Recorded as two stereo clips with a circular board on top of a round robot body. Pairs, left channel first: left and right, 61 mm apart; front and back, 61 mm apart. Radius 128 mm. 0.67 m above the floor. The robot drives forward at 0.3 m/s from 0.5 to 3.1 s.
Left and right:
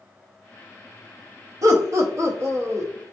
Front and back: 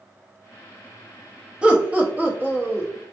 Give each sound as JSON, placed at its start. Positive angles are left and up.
{"t": 1.6, "sound": "laughter", "azimuth_deg": -110, "distance_m": 1.1}